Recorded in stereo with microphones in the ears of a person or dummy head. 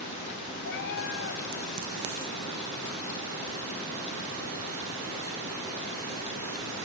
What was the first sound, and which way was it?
A cat meowing, 55° left (ahead or behind).